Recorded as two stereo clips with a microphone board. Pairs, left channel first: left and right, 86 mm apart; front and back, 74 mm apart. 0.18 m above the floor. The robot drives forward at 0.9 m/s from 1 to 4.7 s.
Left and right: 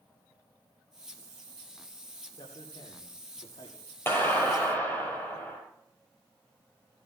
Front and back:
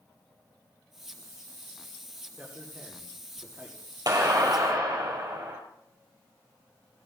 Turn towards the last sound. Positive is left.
turn(degrees=155)